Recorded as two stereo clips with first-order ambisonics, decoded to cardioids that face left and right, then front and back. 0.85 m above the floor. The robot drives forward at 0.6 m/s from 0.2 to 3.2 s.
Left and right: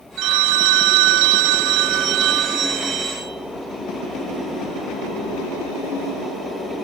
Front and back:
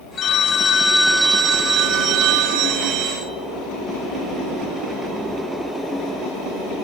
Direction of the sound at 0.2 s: 55° right.